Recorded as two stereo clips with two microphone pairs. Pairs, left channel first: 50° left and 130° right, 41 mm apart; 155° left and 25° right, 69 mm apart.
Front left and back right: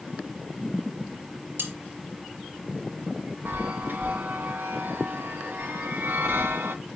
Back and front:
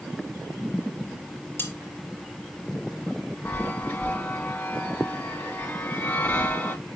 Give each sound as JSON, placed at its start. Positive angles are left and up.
{"t": 1.6, "sound": "cutlery clinking", "azimuth_deg": -145, "distance_m": 4.0}
{"t": 3.5, "sound": "a chime", "azimuth_deg": -140, "distance_m": 3.0}